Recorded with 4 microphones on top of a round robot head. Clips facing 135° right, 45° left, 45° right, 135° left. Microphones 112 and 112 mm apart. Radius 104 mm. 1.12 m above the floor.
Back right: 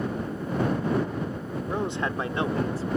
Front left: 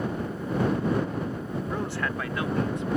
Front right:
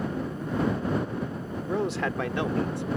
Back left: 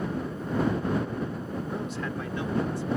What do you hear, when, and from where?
1.7 s a man speaking: 60° right; by 2.9 s 80° right